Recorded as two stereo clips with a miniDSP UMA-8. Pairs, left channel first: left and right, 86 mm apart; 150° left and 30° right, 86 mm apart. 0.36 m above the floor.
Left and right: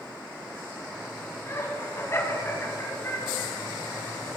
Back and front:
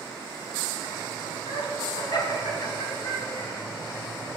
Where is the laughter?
145° left, 2.5 m.